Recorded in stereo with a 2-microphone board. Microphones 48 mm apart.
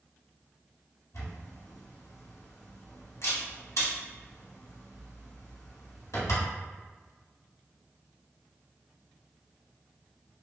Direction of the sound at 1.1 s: 90° left.